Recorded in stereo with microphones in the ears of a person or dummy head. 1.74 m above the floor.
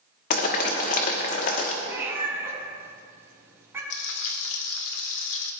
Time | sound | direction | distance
0.3 | boiling | 40° left (ahead or behind) | 1.3 m
1.8 | a cat meowing | 10° right (ahead or behind) | 3.5 m
3.9 | frying | 70° left (ahead or behind) | 1.3 m